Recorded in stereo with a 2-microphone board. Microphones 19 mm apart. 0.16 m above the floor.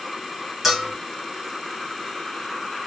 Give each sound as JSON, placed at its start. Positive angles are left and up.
{"t": 0.6, "sound": "a bell", "side_deg": -5, "distance_m": 1.8}